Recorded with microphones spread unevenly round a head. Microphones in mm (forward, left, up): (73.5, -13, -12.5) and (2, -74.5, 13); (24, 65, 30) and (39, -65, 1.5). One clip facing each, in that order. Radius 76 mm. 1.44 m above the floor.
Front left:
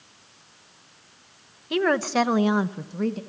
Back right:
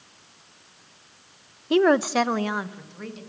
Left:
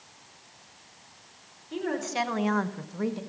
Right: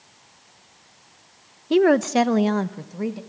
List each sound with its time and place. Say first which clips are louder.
1.7 s a woman speaking: back right 4 dB, right 14 dB; 90° right, 1.2 m; by 3.2 s straight ahead, 2.0 m